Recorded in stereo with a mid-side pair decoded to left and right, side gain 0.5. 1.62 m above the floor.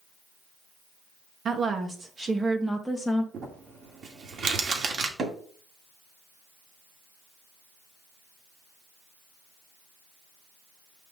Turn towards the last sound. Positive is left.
turn(degrees=-45)